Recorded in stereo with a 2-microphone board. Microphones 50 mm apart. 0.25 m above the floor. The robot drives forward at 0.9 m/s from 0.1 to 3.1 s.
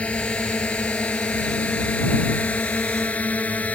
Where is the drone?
25° left (ahead or behind); by 3.8 s 30° left (ahead or behind).